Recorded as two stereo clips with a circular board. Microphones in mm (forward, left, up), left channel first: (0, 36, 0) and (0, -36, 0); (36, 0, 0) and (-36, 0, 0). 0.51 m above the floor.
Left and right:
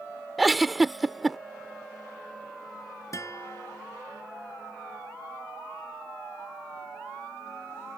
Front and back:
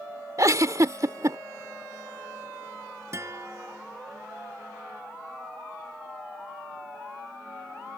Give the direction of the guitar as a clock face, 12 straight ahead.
8 o'clock.